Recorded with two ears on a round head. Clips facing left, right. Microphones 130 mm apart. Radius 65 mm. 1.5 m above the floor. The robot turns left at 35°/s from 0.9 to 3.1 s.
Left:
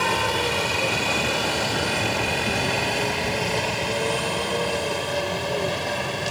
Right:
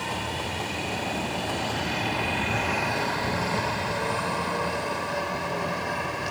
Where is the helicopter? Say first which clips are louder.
Left 8 dB; 75° left (ahead or behind); by 6.3 s 35° left (ahead or behind).